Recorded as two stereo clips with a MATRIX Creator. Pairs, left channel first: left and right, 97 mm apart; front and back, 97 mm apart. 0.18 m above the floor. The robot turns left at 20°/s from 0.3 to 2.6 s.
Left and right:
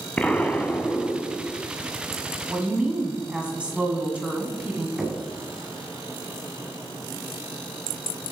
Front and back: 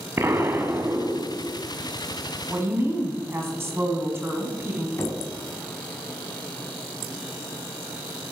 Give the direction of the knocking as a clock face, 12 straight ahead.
12 o'clock.